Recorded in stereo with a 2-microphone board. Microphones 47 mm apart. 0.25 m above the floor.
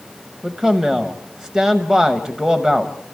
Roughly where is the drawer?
No drawer in this recording.